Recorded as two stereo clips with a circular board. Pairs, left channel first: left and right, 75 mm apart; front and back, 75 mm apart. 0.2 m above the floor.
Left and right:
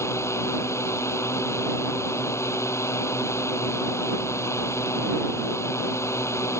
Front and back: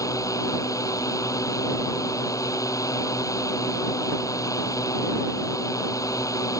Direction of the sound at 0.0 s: 40° left.